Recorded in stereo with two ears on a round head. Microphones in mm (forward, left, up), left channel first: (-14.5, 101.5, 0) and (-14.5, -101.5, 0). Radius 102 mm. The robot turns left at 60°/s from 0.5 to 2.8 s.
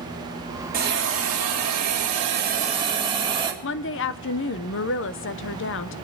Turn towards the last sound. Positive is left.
turn(degrees=50)  # may be behind; listen again after turning